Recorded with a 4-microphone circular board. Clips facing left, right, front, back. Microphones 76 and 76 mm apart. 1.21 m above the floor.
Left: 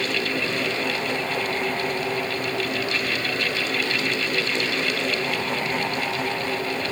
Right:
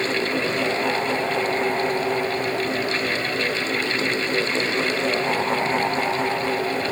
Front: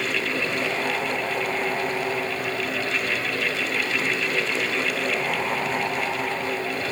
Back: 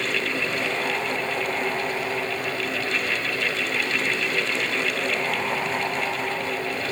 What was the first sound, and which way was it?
Only background noise.